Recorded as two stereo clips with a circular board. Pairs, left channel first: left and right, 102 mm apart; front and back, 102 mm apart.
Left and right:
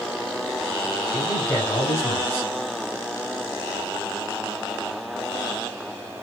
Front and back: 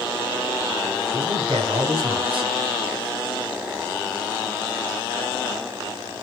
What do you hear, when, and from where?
1.1 s a man speaking: 150° left, 4.5 m